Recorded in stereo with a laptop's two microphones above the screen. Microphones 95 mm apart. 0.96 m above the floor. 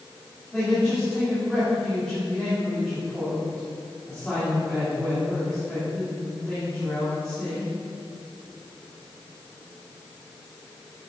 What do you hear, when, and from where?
0.5 s a man speaking: 10° left (ahead or behind), 2.5 m